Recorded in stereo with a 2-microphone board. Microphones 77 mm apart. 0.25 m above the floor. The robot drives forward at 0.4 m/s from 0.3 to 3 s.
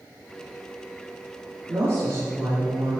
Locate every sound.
1.7 s a woman speaking: 30° right (ahead or behind), 4 m; by 3.0 s 35° right (ahead or behind), 3.5 m